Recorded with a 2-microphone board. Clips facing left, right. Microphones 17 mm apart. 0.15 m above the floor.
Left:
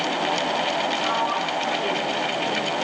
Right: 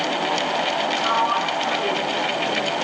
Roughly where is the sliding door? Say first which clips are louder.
Right 3 dB; right.